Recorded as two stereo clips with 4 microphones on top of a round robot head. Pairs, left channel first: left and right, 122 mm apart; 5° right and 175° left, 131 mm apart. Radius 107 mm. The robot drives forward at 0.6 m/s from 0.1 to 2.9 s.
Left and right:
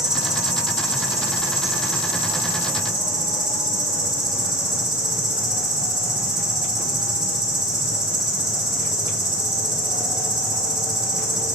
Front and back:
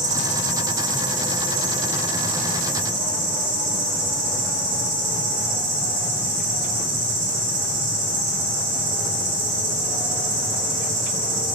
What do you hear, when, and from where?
0.0 s an insect: 175° right, 1.1 m; by 11.6 s straight behind, 2.5 m